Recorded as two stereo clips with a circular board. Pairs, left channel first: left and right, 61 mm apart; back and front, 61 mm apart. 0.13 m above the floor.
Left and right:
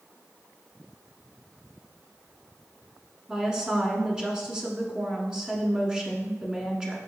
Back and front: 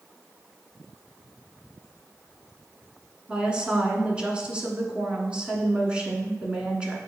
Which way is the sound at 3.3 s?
35° right.